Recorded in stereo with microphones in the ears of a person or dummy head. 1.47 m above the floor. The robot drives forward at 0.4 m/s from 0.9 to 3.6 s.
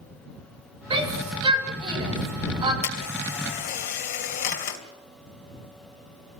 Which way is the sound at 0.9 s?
25° right (ahead or behind).